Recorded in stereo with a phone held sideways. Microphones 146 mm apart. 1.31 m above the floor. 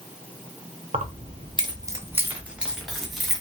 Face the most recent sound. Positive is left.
turn(degrees=5)  # may be behind; listen again after turning